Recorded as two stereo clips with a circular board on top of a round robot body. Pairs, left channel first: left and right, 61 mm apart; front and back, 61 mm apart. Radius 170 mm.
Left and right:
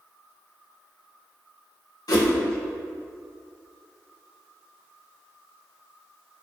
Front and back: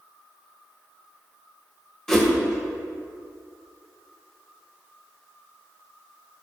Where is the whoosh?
85° left, 1.8 m.